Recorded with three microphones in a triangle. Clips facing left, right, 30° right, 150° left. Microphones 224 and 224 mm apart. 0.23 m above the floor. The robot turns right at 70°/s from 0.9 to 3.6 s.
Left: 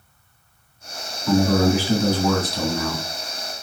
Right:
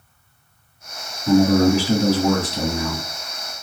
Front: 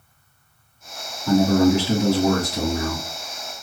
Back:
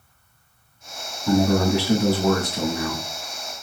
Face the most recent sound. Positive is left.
turn(degrees=35)